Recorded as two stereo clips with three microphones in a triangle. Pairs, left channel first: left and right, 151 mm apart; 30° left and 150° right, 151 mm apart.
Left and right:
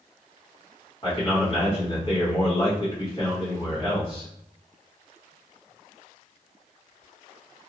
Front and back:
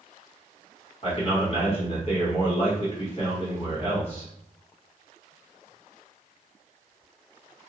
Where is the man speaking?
50° left, 1.5 m.